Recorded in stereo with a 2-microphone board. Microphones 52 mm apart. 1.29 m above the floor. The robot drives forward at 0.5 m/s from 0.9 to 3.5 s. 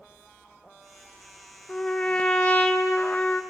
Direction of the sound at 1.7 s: 20° left (ahead or behind).